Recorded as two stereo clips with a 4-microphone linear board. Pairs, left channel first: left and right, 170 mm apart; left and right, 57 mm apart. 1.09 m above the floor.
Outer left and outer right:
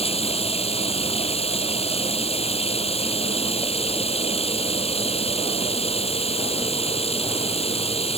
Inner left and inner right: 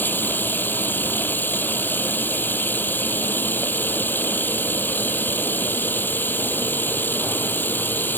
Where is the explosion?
No explosion in this recording.